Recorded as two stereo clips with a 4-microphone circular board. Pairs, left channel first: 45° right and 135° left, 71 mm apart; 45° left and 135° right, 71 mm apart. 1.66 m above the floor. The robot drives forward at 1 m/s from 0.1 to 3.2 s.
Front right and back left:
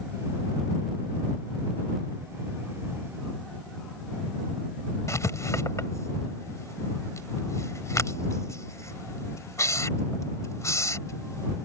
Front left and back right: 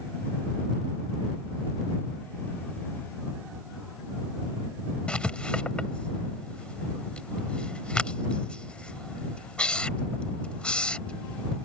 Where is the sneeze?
I don't hear a sneeze.